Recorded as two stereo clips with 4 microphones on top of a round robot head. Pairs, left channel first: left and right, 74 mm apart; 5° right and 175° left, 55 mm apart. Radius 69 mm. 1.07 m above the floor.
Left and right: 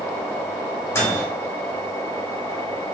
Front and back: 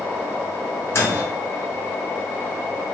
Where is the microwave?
30° left, 1.0 m.